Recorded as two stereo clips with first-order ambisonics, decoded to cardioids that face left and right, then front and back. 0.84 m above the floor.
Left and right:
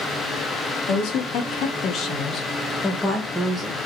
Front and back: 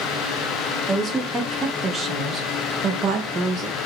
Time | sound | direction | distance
0.9 | a woman speaking | 105° left | 1.5 m